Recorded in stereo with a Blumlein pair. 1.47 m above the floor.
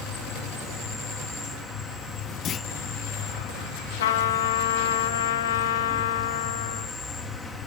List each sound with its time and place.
0.0 s an insect: 5° left, 3.5 m
2.5 s a clunk: 25° left, 0.5 m
4.0 s a trumpet: 60° left, 2.0 m